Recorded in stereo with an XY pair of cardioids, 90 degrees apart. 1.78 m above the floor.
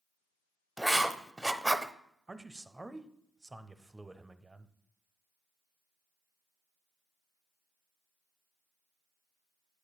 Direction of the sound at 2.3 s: 20° right.